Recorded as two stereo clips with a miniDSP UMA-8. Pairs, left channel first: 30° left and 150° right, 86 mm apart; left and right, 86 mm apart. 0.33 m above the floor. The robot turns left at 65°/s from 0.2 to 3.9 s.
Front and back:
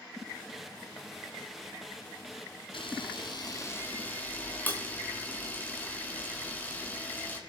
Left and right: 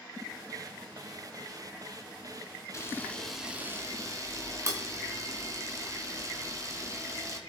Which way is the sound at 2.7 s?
35° left.